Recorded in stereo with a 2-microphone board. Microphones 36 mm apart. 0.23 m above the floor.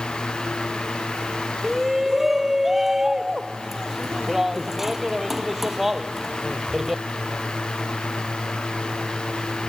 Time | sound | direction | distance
1.6 | a shout | 10° right (ahead or behind) | ?